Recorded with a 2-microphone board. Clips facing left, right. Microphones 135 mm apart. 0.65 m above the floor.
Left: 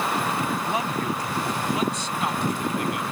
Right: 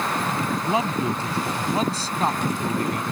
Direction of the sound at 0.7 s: 20° right (ahead or behind).